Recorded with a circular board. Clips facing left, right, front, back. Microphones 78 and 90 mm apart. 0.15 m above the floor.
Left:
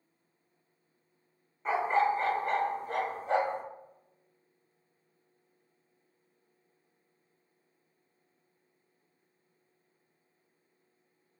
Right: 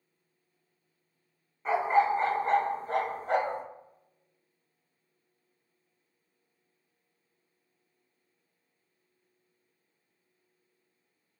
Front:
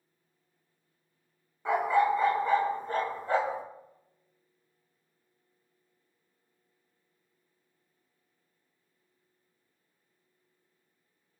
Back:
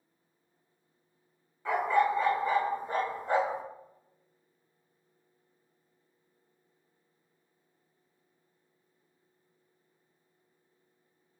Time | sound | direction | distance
1.6 | a dog barking | straight ahead | 0.6 m